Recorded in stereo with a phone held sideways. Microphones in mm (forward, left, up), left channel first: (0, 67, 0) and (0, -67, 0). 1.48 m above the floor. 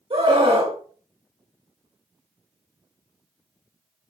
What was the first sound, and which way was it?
A scream, 50° right (ahead or behind).